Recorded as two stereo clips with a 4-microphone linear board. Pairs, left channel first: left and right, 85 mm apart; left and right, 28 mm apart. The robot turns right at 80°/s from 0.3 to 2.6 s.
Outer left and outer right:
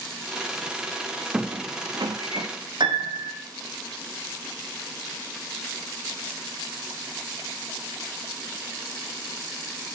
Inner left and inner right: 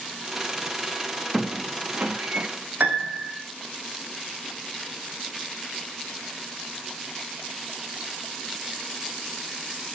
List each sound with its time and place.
1.3 s a squeak: 10° right (ahead or behind), 0.6 m; by 2.5 s 75° right (ahead or behind), 0.6 m
2.8 s a piano: 70° right (ahead or behind), 1.1 m